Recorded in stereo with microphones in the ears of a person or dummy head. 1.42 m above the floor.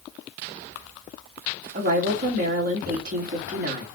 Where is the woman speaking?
45° right (ahead or behind), 2.5 m.